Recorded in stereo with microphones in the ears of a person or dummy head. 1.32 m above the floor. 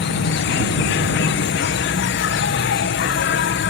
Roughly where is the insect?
Left.